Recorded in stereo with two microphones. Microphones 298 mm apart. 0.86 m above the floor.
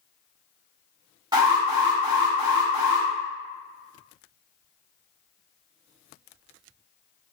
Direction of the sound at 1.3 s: 15° right (ahead or behind).